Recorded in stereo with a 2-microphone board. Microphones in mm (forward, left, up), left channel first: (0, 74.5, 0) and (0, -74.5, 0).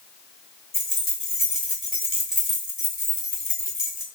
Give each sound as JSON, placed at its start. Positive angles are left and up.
{"t": 0.7, "sound": "keys jangling", "side_deg": 0, "distance_m": 1.9}